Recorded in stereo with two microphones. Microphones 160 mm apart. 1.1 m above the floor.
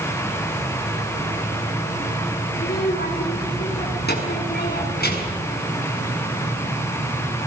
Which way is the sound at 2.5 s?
85° left.